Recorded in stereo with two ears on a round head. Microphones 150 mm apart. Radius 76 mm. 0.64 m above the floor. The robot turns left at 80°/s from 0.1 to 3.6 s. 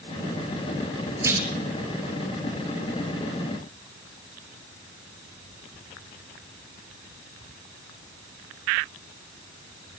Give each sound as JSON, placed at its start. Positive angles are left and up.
{"t": 1.2, "sound": "a clunk", "side_deg": -20, "distance_m": 4.0}